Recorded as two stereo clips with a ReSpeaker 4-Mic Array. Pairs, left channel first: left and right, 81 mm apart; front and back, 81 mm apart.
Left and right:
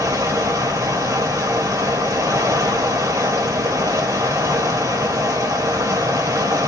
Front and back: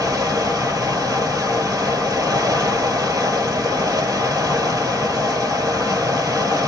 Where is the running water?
135° right, 1.2 m.